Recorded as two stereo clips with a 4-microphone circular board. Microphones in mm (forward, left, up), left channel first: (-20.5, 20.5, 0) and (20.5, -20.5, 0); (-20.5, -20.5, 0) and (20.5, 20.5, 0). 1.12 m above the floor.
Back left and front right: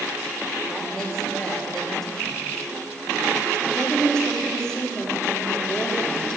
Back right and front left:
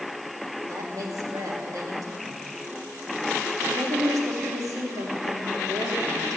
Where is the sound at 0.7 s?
50° left, 2.5 m.